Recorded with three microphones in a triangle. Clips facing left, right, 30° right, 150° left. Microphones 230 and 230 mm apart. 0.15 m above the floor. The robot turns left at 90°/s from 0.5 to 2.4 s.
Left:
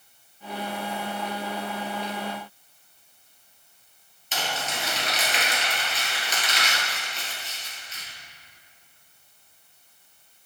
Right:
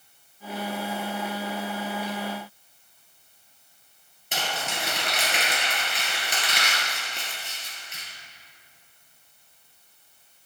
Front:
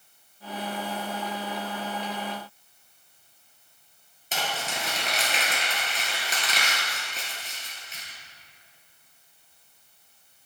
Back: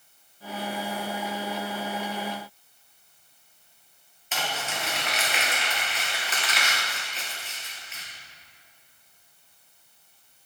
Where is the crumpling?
75° right, 2.5 m.